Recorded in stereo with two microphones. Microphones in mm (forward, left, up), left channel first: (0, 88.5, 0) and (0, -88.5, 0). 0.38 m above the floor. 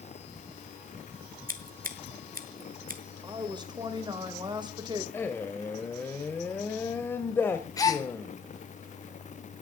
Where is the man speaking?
10° left (ahead or behind), 1.4 m.